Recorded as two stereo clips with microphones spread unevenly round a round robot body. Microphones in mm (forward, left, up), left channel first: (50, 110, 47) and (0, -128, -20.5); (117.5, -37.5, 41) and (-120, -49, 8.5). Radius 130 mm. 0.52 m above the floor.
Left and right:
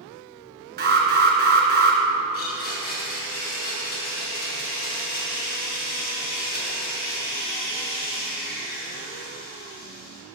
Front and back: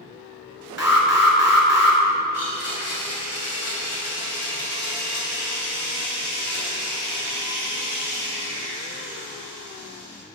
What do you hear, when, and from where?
0.8 s an alarm: 100° right, 2.5 m
2.3 s a blender: 40° left, 3.5 m